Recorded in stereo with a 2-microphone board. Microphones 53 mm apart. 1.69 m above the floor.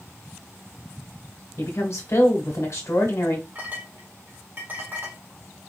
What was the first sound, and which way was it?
A woman speaking, 60° left (ahead or behind).